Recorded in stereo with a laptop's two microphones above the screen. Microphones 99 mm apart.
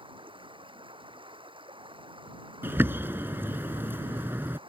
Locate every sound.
0.0 s running water: 65° right (ahead or behind)
2.6 s a bird: 25° right (ahead or behind)